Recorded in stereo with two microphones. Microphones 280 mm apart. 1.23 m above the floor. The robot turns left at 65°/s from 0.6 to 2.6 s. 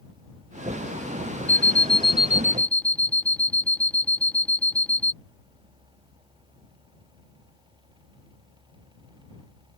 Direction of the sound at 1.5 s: 25° left (ahead or behind).